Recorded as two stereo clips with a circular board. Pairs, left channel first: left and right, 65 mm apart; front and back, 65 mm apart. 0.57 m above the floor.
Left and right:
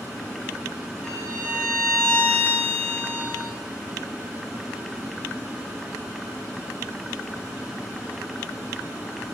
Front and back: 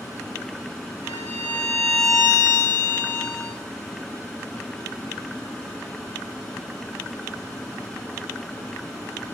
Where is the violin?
165° left, 4 m.